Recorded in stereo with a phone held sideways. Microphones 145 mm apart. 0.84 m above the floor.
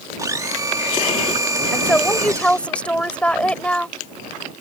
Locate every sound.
0.2 s a blender: 25° right (ahead or behind)
1.7 s a woman speaking: 10° left (ahead or behind)